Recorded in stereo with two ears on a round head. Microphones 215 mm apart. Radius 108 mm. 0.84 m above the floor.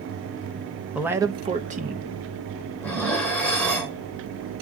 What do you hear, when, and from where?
0.9 s a man speaking: 5° right (ahead or behind), 0.9 m; by 2.2 s 40° right (ahead or behind), 1.1 m
2.8 s dishes clattering: 5° left (ahead or behind), 2.5 m